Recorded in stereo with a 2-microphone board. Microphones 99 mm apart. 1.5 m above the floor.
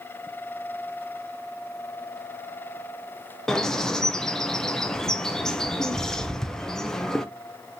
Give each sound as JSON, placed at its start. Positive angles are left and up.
{"t": 3.5, "sound": "a bird", "side_deg": 5, "distance_m": 0.5}